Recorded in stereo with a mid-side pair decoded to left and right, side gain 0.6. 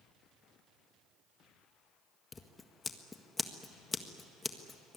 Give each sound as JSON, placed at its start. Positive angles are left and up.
{"t": 2.3, "sound": "scissors", "azimuth_deg": 20, "distance_m": 1.8}